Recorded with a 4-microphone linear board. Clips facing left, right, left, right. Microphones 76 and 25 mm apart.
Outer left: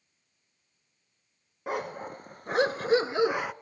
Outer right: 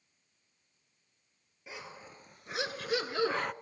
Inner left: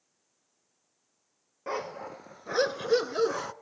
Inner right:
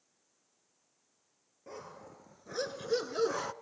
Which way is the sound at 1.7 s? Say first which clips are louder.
Outer left 14 dB, inner left 13 dB; 65° left (ahead or behind).